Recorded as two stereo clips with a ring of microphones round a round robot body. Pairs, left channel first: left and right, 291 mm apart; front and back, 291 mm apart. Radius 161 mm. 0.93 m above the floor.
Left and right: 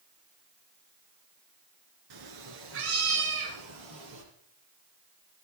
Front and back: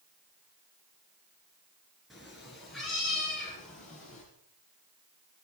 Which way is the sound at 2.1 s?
90° right.